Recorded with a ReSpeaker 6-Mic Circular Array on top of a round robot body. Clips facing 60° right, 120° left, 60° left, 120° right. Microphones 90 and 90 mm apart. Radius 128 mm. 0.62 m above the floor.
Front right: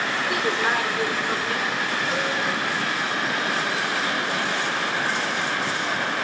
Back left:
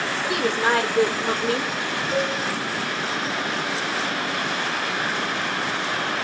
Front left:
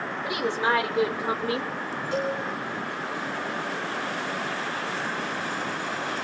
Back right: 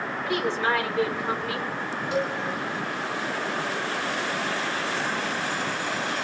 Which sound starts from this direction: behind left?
A woman speaking, at 0.2 s.